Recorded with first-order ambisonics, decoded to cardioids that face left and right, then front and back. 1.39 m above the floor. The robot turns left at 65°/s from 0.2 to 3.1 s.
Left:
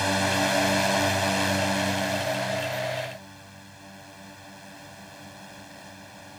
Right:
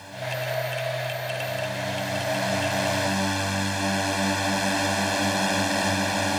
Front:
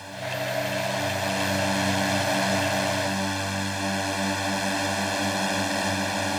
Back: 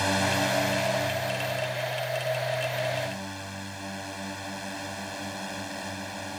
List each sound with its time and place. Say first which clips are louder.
0.0 s a drone: left 7 dB, back 5 dB; 130° left; by 6.4 s 60° right